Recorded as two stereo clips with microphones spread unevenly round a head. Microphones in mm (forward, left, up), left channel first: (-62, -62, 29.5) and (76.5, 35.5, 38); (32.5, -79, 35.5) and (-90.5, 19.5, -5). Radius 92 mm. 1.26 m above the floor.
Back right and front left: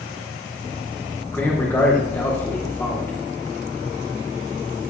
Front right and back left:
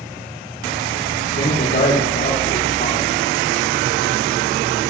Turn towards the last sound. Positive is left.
turn(degrees=-65)